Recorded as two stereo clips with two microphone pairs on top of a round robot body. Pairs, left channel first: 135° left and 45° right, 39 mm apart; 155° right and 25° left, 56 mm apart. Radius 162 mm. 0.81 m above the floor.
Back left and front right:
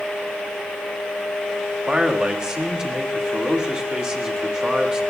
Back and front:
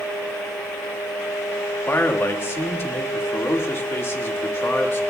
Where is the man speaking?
115° right, 1.8 m.